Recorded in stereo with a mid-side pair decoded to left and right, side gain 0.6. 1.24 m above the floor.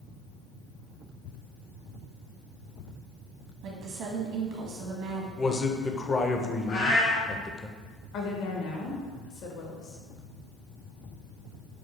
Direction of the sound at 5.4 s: 25° left.